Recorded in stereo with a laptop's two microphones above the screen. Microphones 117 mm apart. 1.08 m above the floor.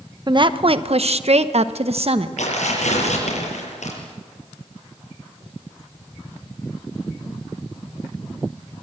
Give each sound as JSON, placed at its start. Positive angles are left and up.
{"t": 0.3, "sound": "a woman speaking", "side_deg": -40, "distance_m": 0.8}
{"t": 2.4, "sound": "tearing paper", "side_deg": 85, "distance_m": 7.0}